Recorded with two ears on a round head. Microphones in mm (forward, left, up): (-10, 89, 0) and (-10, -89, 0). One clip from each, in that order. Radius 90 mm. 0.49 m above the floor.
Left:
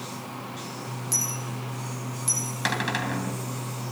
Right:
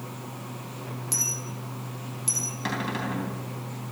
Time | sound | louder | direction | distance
1.1 | a dropped coin | even | centre (ahead or behind) | 5.5 m
2.6 | a cupboard door | left 7 dB | 55° left (ahead or behind) | 3 m